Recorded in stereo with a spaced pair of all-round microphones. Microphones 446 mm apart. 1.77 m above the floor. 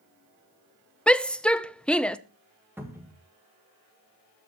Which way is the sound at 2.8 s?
5° right (ahead or behind).